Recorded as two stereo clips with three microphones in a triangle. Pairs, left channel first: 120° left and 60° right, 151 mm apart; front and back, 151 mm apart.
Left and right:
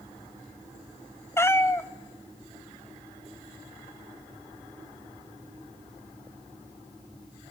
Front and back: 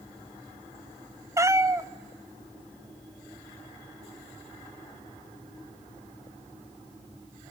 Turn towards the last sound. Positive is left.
turn(degrees=160)